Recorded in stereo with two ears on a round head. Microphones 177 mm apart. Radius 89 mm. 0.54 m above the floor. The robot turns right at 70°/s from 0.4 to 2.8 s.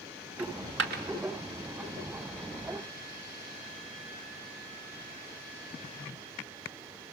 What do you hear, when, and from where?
0.4 s a dropped coin: 80° right, 1.5 m; by 1.0 s 45° right (ahead or behind), 1.5 m